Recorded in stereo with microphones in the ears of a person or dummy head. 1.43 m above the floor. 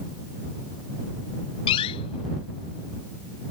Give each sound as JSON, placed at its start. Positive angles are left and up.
{"t": 1.7, "sound": "a door slam", "side_deg": 30}